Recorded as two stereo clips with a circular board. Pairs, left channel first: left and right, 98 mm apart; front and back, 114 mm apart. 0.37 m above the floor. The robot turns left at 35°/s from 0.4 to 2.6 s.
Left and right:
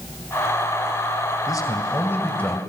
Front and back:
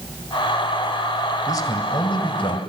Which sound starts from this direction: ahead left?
A man speaking, at 1.5 s.